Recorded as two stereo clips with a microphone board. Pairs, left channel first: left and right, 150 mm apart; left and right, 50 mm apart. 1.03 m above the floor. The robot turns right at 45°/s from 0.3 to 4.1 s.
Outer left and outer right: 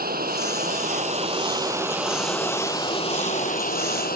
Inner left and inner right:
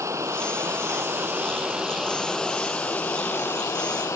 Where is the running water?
85° right; by 4.2 s 85° left.